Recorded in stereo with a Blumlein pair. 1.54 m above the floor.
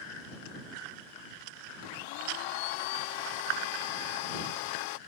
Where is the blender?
45° left.